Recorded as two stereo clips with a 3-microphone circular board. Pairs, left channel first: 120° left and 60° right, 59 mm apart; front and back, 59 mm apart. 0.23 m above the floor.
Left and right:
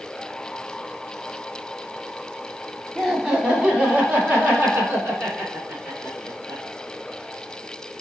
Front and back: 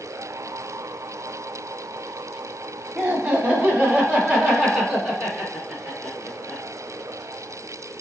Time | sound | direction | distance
3.0 | laughter | 140° right | 1.2 m